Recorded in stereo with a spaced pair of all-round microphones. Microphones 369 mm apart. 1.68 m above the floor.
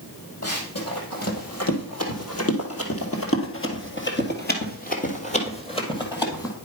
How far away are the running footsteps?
About 3 m.